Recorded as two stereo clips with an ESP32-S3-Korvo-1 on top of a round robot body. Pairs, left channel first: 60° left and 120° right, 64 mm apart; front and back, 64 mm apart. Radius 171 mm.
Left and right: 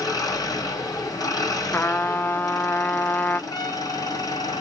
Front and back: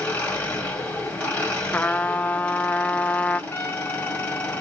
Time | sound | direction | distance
0.0 | an engine running | 65° left | 1.9 m
1.7 | a trumpet | 40° left | 0.5 m
3.5 | a trumpet | 45° left | 0.5 m